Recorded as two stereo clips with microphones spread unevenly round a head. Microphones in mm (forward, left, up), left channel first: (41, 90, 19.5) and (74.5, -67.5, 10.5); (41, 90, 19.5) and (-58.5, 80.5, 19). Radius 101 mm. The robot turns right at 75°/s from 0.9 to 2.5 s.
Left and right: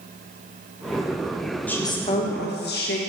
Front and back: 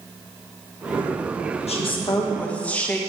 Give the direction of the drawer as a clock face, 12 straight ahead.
No drawer in this recording.